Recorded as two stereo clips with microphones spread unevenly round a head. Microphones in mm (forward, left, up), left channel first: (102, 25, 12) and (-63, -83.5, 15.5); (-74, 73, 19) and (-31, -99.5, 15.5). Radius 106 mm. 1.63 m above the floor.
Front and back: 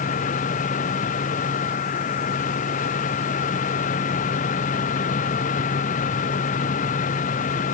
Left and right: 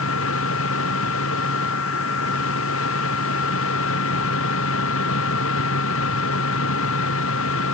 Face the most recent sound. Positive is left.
turn(degrees=90)